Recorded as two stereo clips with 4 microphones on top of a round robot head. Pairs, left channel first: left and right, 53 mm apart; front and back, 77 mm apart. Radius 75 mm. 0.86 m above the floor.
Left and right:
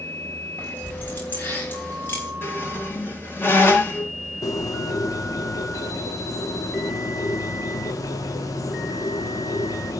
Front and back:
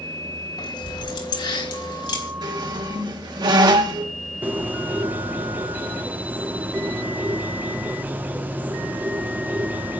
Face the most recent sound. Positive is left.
turn(degrees=110)